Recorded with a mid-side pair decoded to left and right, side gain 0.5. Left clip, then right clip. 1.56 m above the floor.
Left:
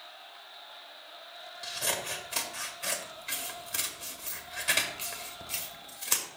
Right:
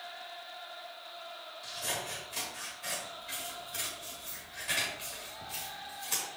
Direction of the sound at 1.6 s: 70° left.